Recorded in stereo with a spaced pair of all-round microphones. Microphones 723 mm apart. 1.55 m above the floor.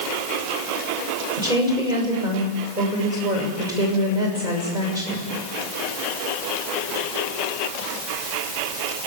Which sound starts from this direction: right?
A woman speaking, at 1.4 s.